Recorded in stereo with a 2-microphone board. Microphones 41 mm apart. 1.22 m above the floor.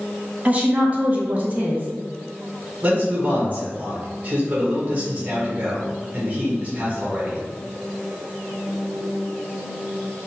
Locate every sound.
0.5 s a woman speaking: 35° right (ahead or behind), 0.8 m
2.8 s a man speaking: 30° right (ahead or behind), 1.3 m